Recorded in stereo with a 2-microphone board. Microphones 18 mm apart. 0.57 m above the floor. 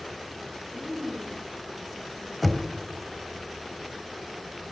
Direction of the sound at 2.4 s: 5° left (ahead or behind).